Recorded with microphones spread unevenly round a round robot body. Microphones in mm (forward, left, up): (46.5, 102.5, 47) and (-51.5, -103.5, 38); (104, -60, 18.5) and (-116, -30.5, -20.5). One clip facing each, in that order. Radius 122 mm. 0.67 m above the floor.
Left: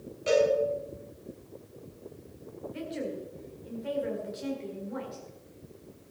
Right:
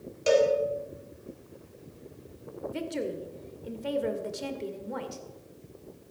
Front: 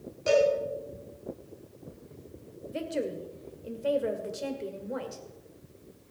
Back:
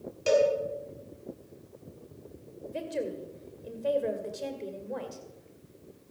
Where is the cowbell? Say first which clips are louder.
Right 2 dB, even; 145° right, 4.5 m.